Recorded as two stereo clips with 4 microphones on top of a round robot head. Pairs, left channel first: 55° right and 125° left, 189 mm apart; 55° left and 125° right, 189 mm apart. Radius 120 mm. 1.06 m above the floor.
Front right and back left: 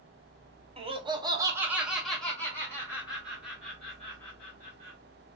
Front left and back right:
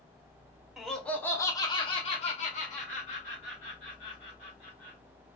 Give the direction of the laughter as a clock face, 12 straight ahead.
7 o'clock.